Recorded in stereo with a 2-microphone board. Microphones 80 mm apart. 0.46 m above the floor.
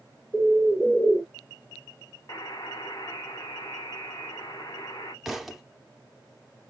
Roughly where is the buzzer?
Left.